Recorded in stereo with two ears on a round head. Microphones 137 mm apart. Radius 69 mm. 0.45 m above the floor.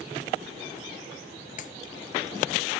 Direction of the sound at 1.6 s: 55° left (ahead or behind).